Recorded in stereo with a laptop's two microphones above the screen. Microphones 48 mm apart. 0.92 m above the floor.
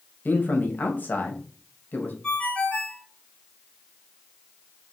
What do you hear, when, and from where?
0.2 s a man speaking: 40° left (ahead or behind), 0.9 m
2.2 s a ringtone: 20° left (ahead or behind), 1.0 m